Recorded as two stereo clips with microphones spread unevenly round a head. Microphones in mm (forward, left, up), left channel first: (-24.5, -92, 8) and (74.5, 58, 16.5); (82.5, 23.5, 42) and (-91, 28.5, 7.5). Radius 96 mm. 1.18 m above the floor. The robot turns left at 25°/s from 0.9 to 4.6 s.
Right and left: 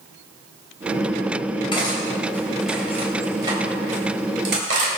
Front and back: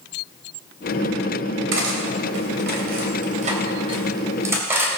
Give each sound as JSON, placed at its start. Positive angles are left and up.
{"t": 1.7, "sound": "cutlery clinking", "azimuth_deg": 170, "distance_m": 3.5}